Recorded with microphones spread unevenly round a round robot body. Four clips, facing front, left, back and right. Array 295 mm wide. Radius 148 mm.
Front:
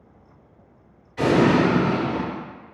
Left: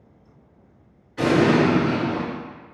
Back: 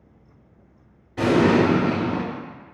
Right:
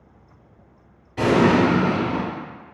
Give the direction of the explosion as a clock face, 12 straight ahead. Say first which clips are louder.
Right 1 dB, even; 5 o'clock.